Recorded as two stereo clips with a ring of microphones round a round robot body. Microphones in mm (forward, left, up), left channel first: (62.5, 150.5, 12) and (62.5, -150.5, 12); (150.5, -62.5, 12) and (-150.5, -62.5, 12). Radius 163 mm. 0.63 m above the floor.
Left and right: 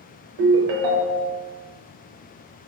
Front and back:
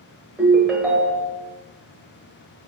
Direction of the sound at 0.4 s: 95° right.